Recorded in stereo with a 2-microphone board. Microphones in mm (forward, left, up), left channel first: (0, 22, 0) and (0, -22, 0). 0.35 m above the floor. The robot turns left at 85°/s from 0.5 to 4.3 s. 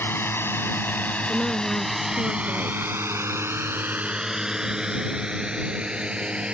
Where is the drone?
60° left (ahead or behind); by 6.5 s 25° right (ahead or behind).